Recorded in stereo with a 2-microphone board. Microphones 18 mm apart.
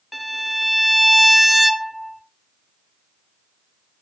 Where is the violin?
5° right (ahead or behind), 0.8 m.